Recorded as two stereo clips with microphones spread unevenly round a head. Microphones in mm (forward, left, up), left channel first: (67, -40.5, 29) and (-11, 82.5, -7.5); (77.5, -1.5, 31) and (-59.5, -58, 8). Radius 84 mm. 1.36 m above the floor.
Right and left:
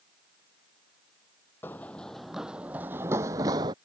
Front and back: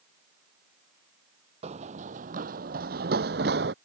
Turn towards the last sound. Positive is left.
turn(degrees=-165)